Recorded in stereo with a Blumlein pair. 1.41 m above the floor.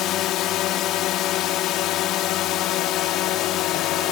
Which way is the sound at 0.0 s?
35° left.